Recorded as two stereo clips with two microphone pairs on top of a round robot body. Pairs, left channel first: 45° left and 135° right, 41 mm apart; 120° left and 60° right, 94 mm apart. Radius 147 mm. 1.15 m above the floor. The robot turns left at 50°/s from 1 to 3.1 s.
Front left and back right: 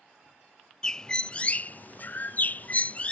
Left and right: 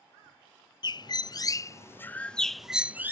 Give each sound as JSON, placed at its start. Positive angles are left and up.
{"t": 0.8, "sound": "a bird", "azimuth_deg": 110}